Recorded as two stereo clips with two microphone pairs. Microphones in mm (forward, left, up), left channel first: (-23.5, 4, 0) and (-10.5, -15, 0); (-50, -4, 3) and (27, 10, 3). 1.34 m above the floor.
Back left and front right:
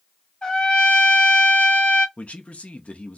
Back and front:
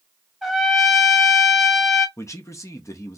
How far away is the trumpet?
About 1.1 m.